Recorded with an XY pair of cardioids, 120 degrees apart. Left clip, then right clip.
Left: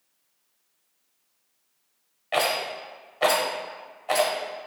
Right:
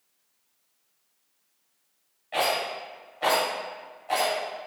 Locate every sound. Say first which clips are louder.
2.3 s a rattle: left 1 dB; 65° left, 0.9 m